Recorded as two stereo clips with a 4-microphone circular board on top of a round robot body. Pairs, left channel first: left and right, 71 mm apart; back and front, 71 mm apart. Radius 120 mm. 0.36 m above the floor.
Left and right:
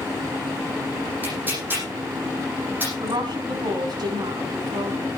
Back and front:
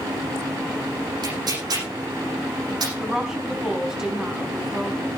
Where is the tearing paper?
25° right, 10 m.